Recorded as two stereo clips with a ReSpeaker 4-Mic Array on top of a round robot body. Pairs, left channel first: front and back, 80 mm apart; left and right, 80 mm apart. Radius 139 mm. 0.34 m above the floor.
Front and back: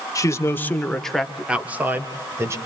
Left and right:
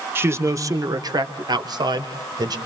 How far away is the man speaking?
About 1.9 m.